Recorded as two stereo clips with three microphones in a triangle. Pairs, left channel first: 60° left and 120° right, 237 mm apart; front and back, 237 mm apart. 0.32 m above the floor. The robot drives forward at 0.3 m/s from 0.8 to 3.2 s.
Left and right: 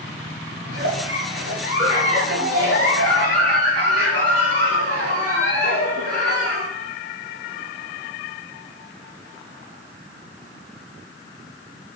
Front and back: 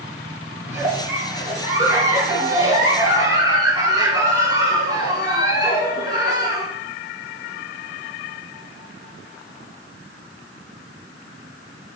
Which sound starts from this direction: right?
A giggle, at 0.7 s.